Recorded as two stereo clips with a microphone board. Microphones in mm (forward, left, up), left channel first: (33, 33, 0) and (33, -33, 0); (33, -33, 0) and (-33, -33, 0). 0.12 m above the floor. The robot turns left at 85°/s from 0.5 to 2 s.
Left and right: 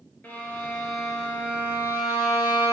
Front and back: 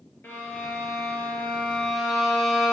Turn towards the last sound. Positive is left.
turn(degrees=-90)